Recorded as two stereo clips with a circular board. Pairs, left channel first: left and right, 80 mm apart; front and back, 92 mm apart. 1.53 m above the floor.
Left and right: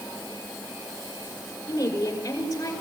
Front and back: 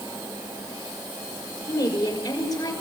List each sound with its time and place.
1.7 s a woman speaking: 45° left, 5.5 m